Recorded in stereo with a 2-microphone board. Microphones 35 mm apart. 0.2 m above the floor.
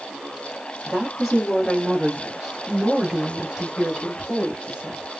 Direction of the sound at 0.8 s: Centre (ahead or behind).